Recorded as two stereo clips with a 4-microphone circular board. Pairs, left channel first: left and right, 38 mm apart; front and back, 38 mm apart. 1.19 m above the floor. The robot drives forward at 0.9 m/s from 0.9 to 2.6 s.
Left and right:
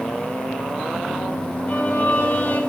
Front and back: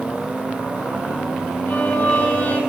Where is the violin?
50° left, 6.5 m; by 2.6 s 55° left, 6 m.